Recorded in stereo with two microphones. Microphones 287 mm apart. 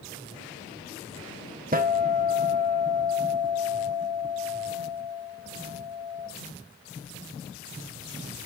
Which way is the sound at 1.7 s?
30° right (ahead or behind).